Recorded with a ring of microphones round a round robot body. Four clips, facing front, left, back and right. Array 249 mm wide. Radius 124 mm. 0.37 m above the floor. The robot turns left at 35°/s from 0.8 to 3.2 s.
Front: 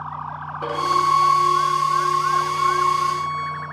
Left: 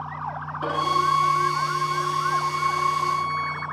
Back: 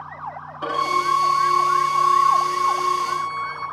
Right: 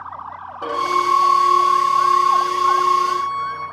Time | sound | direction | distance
0.6 | a violin | 70° right | 4 m